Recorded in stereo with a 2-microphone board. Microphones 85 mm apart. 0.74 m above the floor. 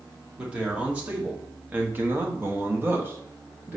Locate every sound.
0.4 s a man speaking: 15° right (ahead or behind), 1.8 m; by 3.8 s 20° right (ahead or behind), 1.1 m